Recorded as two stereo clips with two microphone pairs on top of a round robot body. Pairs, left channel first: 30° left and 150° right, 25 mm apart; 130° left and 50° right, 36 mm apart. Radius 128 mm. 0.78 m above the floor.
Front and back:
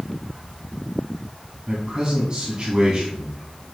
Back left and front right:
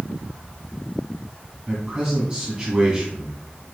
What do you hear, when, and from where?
1.7 s a man speaking: 115° right, 2 m